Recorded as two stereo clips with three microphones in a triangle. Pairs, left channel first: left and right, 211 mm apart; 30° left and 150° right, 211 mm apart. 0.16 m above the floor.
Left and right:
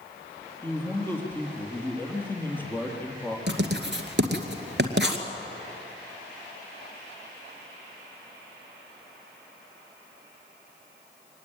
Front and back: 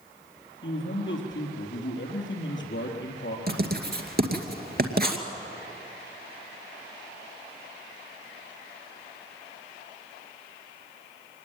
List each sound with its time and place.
0.6 s a man speaking: 10° left, 4 m
3.5 s writing: 115° right, 2 m